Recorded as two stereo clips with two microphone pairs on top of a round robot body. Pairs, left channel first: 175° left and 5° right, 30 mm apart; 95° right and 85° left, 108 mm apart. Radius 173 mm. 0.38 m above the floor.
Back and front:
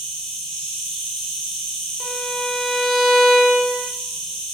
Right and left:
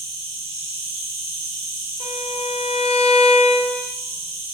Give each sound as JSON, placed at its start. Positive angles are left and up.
{"t": 0.0, "sound": "an insect", "azimuth_deg": 125, "distance_m": 1.9}
{"t": 2.0, "sound": "a violin", "azimuth_deg": -105, "distance_m": 0.9}